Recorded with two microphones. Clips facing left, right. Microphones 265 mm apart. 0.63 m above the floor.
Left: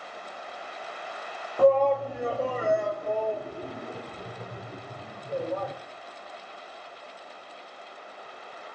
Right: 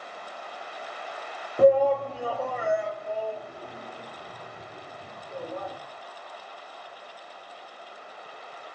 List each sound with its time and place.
1.6 s a shout: 20° right (ahead or behind), 0.6 m; by 5.8 s 70° left (ahead or behind), 2.5 m